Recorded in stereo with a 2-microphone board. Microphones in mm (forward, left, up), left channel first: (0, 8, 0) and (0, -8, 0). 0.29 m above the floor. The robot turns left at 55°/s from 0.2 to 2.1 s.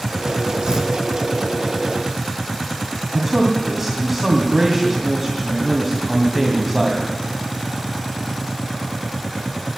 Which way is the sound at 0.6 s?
50° right (ahead or behind).